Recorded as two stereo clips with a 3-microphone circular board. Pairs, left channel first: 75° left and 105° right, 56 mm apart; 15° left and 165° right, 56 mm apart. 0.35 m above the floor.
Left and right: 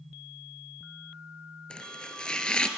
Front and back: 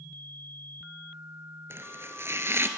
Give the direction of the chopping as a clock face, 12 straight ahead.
7 o'clock.